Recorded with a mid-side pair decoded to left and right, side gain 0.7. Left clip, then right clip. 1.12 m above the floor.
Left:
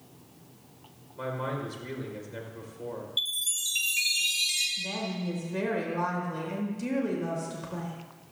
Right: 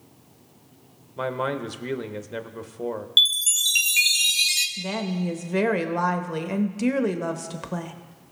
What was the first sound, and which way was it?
A man speaking, 50° right.